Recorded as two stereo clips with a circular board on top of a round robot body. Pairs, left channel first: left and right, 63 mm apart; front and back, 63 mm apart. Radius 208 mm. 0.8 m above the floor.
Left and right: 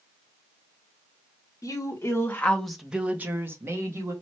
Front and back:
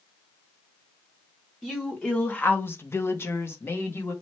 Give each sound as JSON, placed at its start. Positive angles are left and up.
{"t": 1.6, "sound": "a woman speaking", "azimuth_deg": 85, "distance_m": 1.1}